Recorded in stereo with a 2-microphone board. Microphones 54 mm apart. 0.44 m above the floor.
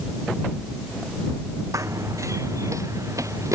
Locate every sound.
1.7 s running footsteps: 75° right (ahead or behind); by 3.5 s 80° right